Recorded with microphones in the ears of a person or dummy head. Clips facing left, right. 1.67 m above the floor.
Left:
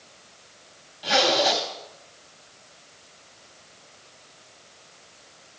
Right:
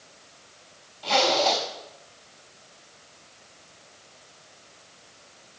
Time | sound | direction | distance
1.0 | a zipper | 15° left (ahead or behind) | 3.5 m